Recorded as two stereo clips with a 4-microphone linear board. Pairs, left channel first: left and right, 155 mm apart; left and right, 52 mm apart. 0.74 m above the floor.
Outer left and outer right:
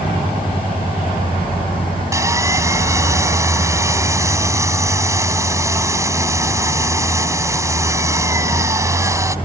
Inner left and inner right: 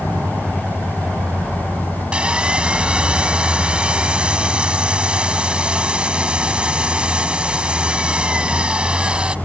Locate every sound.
2.1 s sawing: 20° right (ahead or behind)